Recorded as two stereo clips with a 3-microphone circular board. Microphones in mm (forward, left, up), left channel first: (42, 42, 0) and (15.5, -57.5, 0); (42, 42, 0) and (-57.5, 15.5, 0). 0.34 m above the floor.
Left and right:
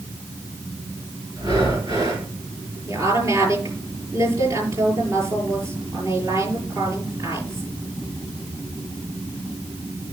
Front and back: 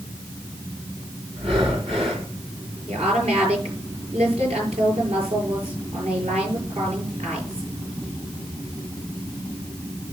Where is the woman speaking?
165° right, 7.5 m.